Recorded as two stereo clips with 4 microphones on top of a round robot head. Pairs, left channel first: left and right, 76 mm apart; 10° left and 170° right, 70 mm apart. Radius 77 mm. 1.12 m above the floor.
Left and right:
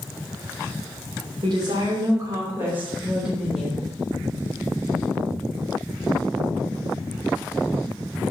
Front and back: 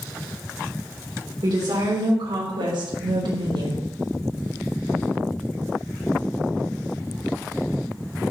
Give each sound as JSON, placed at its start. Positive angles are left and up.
{"t": 1.4, "sound": "a woman speaking", "azimuth_deg": -130, "distance_m": 3.0}